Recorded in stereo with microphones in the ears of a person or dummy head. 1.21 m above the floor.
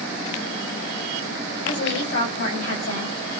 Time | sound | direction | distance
1.6 | a woman speaking | 70° left (ahead or behind) | 5 m